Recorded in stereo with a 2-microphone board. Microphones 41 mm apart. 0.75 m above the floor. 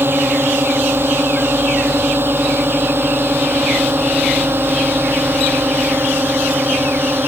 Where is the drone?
60° right (ahead or behind).